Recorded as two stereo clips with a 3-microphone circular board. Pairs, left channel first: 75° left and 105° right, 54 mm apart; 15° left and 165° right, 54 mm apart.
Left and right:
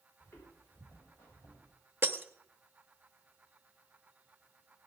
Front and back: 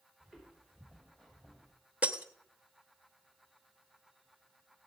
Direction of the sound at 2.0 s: 125° right.